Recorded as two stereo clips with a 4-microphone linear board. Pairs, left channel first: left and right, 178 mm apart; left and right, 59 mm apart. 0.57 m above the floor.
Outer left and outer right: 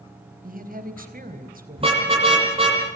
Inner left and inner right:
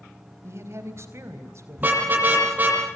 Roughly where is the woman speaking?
Right.